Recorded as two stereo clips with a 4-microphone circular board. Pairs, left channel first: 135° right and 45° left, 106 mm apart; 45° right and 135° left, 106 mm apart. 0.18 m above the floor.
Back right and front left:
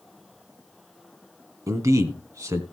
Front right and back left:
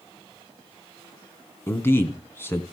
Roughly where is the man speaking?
Ahead.